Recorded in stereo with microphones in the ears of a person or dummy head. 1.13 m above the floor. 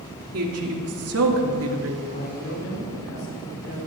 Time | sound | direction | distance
0.3 | a woman speaking | 80° right | 3 m
2.1 | a man speaking | 55° left (ahead or behind) | 6 m